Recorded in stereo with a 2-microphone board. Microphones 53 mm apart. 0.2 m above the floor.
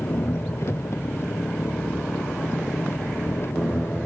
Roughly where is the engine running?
Left.